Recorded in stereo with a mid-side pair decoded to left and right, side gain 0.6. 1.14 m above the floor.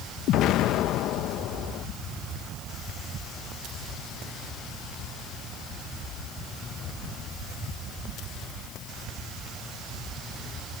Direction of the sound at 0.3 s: 65° left.